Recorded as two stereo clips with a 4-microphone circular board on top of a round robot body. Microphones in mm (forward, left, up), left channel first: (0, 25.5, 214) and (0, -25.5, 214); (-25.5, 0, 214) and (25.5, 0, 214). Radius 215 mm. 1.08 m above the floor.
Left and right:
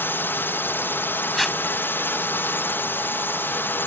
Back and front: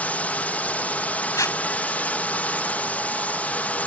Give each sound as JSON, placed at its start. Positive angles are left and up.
{"t": 0.0, "sound": "a drone", "azimuth_deg": 125}
{"t": 1.4, "sound": "tape being pulled", "azimuth_deg": 180}